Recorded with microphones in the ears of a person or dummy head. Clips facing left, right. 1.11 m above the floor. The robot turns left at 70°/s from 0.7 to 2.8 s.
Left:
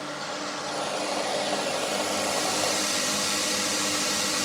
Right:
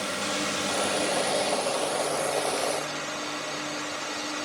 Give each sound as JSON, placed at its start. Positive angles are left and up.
{"t": 0.0, "sound": "a drone", "azimuth_deg": -130}